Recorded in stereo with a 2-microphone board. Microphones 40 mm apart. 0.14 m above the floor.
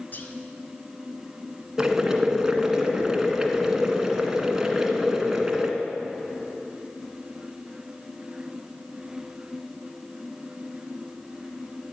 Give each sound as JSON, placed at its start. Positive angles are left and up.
{"t": 0.1, "sound": "whispering", "side_deg": 45, "distance_m": 2.0}
{"t": 1.8, "sound": "boiling", "side_deg": -10, "distance_m": 1.7}